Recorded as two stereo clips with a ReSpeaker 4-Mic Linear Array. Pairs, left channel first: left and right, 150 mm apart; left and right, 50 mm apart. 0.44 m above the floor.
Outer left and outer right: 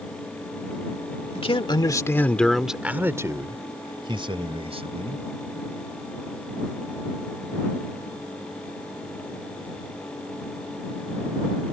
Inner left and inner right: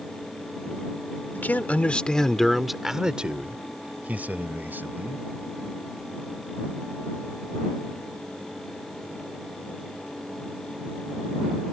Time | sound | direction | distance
1.4 | a man speaking | 40° left (ahead or behind) | ?